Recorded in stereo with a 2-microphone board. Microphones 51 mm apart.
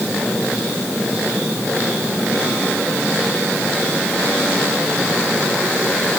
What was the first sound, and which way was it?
Only background noise.